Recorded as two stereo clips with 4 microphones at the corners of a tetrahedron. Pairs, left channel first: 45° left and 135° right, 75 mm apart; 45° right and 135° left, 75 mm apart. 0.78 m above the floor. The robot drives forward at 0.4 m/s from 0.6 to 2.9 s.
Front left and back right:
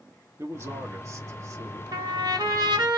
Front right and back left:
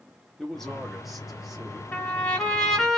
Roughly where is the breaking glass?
I don't hear breaking glass.